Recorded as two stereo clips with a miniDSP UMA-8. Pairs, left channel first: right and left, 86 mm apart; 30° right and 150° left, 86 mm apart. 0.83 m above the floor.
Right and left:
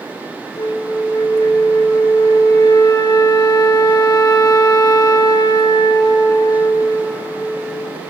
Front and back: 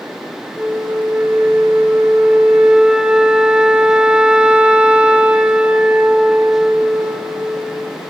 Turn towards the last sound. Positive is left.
turn(degrees=-130)